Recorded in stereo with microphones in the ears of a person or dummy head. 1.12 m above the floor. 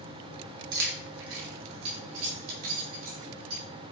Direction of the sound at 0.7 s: 65° right (ahead or behind).